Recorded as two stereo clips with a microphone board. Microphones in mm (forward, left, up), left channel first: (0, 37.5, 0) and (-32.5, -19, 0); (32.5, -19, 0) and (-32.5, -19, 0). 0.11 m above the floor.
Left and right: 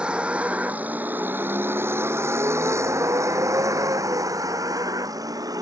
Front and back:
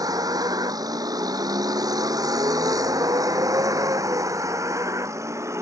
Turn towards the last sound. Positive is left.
turn(degrees=-140)